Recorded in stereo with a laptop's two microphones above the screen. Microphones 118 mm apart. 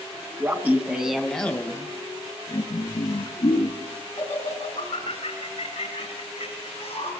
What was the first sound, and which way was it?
Laughter, 25° right (ahead or behind).